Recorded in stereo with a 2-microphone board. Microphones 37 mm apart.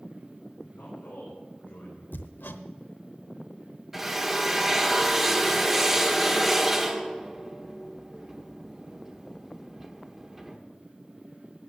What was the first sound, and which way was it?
A man speaking, 60° left (ahead or behind).